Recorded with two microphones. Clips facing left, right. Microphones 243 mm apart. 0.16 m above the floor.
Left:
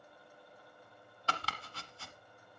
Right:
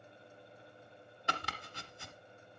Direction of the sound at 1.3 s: 20° right (ahead or behind).